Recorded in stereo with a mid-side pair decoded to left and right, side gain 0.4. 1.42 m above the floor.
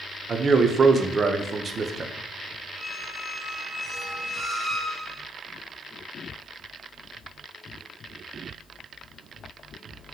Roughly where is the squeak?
Ahead.